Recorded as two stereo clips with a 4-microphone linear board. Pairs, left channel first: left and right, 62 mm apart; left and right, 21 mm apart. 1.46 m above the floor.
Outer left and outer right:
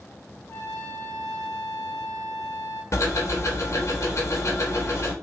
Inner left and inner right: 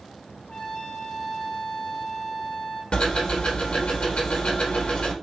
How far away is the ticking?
About 1.2 m.